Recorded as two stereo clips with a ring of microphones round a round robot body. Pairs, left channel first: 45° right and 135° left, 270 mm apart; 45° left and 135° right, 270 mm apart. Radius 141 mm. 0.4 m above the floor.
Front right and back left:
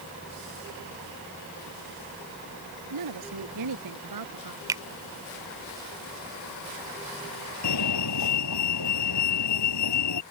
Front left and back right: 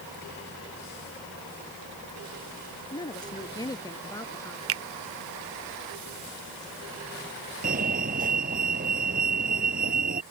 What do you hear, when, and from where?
2.9 s a woman speaking: 120° left; by 4.6 s 125° left
4.7 s a finger snap: 150° right
7.6 s a fire alarm: 75° right